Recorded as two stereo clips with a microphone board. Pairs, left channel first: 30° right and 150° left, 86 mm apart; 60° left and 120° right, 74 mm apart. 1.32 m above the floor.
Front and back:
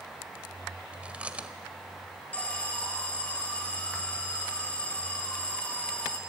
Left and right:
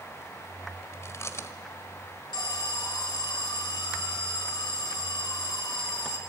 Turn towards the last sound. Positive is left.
turn(degrees=45)